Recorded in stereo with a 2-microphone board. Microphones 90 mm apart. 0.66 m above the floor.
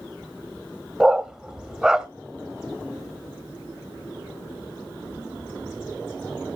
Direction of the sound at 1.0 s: 5° right (ahead or behind).